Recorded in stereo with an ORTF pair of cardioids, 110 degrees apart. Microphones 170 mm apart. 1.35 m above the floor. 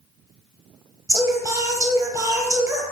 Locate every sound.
1.1 s singing: 20° right, 0.8 m